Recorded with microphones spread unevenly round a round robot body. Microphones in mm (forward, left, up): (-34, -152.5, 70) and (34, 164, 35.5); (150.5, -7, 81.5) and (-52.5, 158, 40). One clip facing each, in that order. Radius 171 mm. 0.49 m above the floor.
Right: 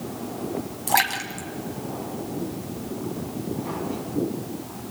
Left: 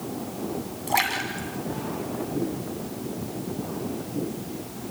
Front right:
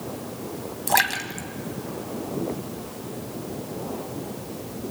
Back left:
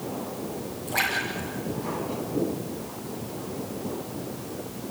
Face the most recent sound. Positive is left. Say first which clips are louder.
# even, front right 2 dB
turn(degrees=-35)